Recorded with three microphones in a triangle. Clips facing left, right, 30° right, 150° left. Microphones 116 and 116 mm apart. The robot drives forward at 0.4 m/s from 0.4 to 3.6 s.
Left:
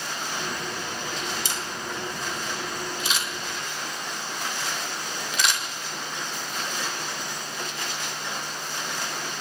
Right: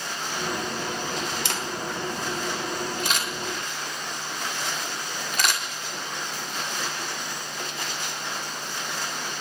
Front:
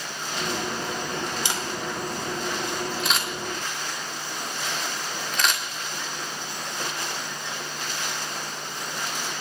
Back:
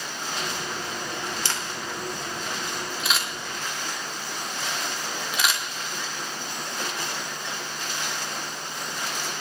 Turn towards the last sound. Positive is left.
turn(degrees=-125)